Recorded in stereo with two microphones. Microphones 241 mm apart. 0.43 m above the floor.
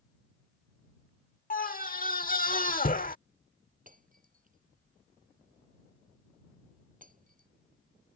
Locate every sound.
1.5 s a scream: 35° left (ahead or behind)
3.9 s breaking glass: 35° right (ahead or behind)